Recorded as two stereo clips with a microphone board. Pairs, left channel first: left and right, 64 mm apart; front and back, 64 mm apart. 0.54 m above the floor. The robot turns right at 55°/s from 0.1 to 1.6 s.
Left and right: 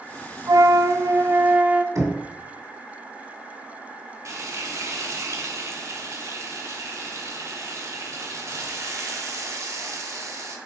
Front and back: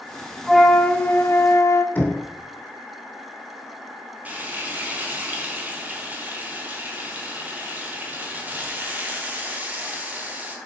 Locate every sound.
0.5 s a flute: 90° right, 0.6 m; by 1.9 s 30° right, 0.6 m
1.9 s knocking: 60° right, 1.8 m
4.2 s frying: 120° right, 1.2 m